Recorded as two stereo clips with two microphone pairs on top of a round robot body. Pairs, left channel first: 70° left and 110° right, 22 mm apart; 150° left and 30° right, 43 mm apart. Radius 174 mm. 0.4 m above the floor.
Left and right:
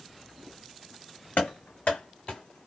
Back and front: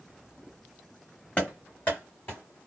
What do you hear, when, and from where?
1.4 s running footsteps: 95° left, 1.9 m; by 2.7 s 120° left, 2.0 m